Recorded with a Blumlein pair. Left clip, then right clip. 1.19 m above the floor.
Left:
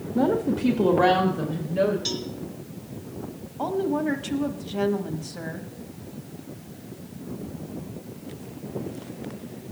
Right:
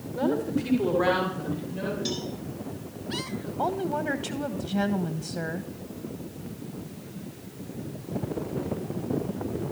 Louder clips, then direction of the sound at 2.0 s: Left 2 dB; 20° left.